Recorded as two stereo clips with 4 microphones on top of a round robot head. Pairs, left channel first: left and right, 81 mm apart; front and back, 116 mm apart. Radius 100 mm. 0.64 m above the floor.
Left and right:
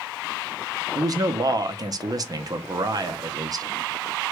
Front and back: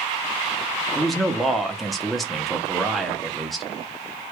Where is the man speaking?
85° right, 0.7 m.